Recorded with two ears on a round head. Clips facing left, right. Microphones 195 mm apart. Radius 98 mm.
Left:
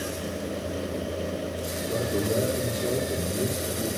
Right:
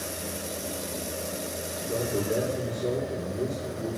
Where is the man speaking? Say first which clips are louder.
Left 1 dB; 60° left (ahead or behind), 4 m.